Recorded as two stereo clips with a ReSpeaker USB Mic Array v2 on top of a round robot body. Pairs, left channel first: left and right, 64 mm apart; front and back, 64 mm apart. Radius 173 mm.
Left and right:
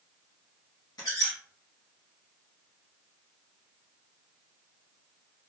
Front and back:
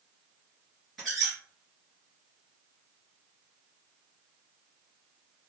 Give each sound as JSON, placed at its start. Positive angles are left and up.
{"t": 1.0, "sound": "a squeak", "azimuth_deg": 90, "distance_m": 1.3}